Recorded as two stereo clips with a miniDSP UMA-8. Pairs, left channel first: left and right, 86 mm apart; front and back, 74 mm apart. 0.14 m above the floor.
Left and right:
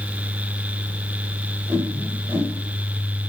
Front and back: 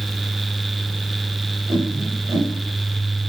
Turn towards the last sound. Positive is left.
turn(degrees=-150)